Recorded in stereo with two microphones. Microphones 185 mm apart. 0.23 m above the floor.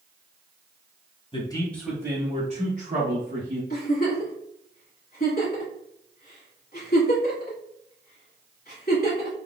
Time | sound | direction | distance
1.3 | a man speaking | 30° left (ahead or behind) | 1.1 m
3.7 | a giggle | 55° left (ahead or behind) | 1.6 m